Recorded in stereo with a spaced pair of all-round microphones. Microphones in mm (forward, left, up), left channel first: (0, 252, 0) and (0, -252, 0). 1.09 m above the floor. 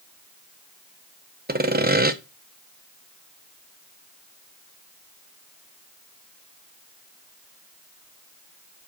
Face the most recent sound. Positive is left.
turn(degrees=-20)  # may be behind; listen again after turning